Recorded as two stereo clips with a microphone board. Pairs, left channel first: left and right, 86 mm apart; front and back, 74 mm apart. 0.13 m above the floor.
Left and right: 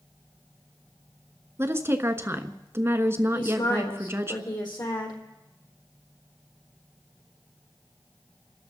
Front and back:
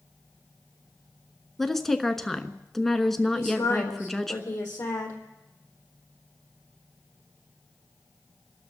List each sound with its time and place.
1.6 s a woman speaking: 85° right, 1.2 m
3.3 s a woman speaking: 50° left, 4 m